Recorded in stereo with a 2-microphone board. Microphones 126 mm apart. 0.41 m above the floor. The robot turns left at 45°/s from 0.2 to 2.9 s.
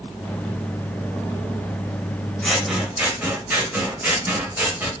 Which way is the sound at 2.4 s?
5° left (ahead or behind).